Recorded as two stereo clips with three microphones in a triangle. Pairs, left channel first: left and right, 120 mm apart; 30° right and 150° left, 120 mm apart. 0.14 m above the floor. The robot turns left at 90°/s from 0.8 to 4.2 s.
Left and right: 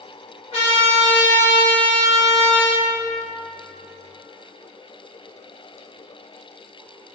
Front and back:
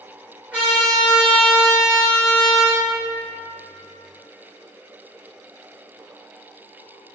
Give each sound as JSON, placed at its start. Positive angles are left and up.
{"t": 0.5, "sound": "a trumpet", "azimuth_deg": 75, "distance_m": 1.5}